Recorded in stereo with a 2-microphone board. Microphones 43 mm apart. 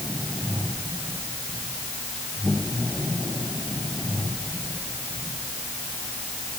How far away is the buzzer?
I don't hear a buzzer.